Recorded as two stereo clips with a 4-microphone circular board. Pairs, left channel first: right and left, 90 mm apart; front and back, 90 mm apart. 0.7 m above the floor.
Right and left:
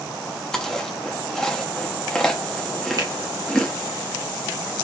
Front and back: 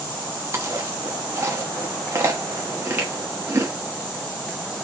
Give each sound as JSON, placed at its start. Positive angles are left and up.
{"t": 0.5, "sound": "chewing", "azimuth_deg": -170, "distance_m": 0.9}
{"t": 3.0, "sound": "a finger snap", "azimuth_deg": 115, "distance_m": 1.3}